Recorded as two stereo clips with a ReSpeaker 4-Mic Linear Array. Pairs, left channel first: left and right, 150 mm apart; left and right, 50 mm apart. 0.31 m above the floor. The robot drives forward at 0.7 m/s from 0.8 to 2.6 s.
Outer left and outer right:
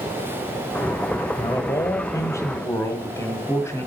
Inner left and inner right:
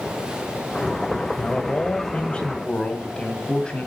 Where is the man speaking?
25° left (ahead or behind), 1.1 m; by 3.9 s 15° left (ahead or behind), 1.6 m.